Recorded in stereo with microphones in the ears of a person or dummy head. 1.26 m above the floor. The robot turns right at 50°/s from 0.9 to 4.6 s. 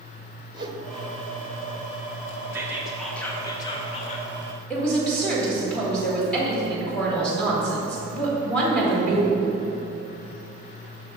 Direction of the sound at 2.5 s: 25° right.